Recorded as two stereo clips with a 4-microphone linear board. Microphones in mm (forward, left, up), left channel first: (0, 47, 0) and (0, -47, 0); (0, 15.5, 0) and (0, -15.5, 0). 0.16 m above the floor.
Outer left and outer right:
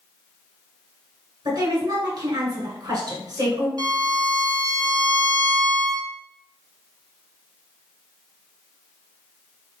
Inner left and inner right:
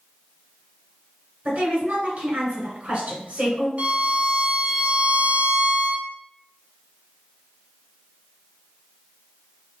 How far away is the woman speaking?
About 1.8 m.